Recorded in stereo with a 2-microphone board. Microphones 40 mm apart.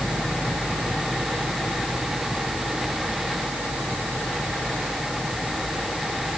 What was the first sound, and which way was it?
Only background noise.